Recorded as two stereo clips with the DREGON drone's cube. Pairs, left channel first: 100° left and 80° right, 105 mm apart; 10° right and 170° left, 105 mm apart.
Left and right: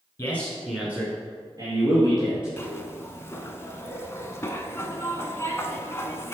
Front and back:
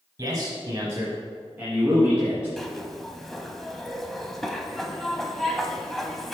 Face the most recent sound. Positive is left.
turn(degrees=75)